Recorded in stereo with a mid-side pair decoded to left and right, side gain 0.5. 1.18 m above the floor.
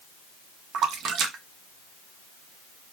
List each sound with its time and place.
0.7 s a splash: 65° right, 0.6 m